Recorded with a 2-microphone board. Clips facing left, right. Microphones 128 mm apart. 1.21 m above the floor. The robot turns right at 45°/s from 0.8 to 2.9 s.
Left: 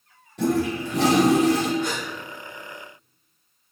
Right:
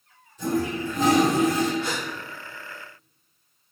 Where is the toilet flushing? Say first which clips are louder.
Left 3 dB; 70° left, 0.5 m; by 1.7 s 115° left, 0.5 m.